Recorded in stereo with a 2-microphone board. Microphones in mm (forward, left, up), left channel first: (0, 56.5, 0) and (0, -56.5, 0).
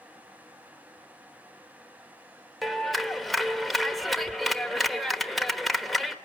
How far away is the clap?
About 1.2 m.